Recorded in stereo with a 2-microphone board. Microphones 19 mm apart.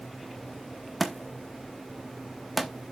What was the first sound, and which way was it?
A thud, 5° left (ahead or behind).